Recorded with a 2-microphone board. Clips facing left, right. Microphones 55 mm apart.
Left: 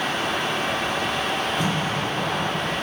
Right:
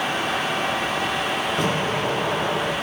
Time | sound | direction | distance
1.6 | an explosion | 70° right (ahead or behind) | 5.5 m